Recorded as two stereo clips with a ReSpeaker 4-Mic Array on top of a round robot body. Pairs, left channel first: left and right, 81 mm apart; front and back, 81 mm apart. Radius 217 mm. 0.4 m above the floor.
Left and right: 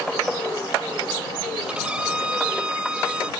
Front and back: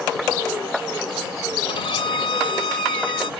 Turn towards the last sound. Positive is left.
turn(degrees=-15)